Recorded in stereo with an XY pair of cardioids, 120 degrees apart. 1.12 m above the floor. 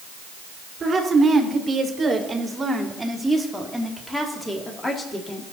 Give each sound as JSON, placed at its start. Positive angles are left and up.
{"t": 0.8, "sound": "a woman speaking", "azimuth_deg": -30, "distance_m": 3.0}